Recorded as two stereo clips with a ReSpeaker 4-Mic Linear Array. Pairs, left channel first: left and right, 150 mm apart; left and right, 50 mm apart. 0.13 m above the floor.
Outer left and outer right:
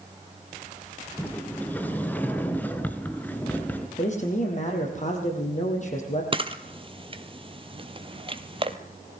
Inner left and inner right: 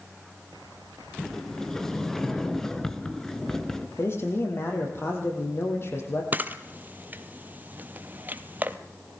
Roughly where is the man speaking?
Left.